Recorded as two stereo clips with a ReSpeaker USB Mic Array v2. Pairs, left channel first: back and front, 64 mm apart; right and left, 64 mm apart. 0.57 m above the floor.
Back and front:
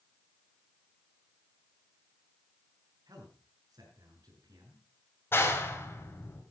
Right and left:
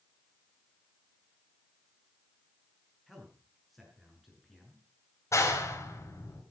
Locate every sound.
3.1 s a man speaking: straight ahead, 6 m
5.3 s a clap: 125° right, 3 m